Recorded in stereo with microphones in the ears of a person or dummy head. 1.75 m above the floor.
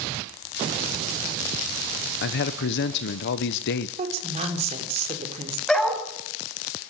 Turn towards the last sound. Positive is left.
turn(degrees=5)  # may be behind; listen again after turning